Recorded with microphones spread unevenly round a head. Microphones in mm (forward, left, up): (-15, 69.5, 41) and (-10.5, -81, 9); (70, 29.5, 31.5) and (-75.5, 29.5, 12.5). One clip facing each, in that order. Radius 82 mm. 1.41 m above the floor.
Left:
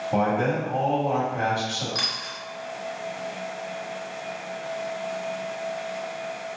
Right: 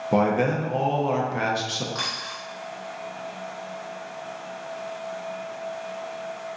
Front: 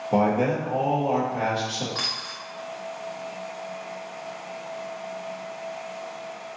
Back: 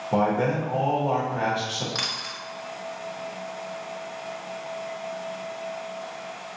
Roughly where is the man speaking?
Right.